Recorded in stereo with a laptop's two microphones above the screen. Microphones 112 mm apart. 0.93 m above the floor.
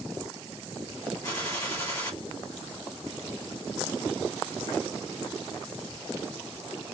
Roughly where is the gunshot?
Left.